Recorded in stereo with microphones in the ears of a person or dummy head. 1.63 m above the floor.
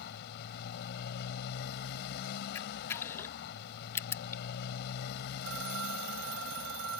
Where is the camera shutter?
10° left (ahead or behind).